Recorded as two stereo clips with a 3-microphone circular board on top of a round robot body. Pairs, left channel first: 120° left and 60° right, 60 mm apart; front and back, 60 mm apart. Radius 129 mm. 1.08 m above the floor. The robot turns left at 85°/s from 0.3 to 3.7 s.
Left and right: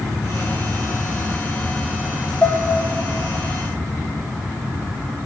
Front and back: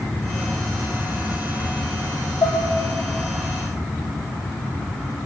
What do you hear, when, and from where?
2.4 s dishes clattering: 50° left, 0.6 m; by 2.6 s 35° left, 0.6 m